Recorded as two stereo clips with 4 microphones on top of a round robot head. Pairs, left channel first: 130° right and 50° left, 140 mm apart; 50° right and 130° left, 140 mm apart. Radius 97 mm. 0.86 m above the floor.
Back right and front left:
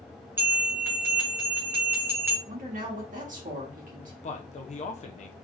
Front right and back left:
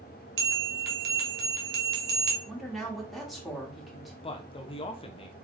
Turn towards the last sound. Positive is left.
turn(degrees=-95)